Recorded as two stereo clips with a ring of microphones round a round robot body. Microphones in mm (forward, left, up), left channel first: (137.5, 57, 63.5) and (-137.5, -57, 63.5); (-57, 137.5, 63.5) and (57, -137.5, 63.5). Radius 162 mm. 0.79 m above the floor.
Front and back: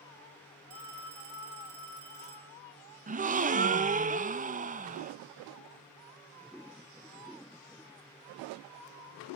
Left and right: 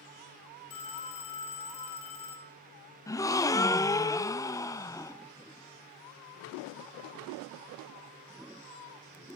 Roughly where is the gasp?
Behind.